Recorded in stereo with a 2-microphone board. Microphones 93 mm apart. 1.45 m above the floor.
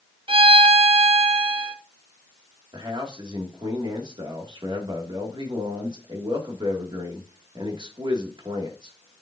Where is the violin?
65° right (ahead or behind), 0.8 m.